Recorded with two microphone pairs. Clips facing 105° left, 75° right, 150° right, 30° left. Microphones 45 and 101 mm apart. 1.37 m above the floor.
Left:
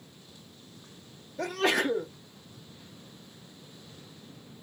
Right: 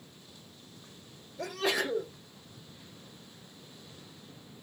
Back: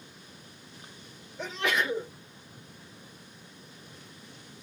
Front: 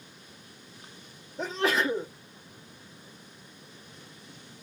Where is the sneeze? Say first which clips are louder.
Left 4 dB, front 3 dB; 85° left, 1.2 m.